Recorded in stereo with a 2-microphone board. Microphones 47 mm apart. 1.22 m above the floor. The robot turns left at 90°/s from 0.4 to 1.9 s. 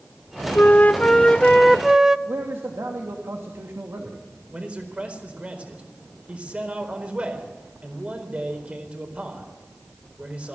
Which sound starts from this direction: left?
A flute, at 0.6 s.